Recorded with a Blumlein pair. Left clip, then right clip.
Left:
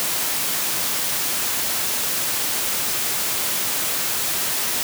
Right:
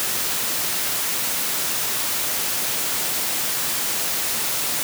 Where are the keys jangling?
No keys jangling in this recording.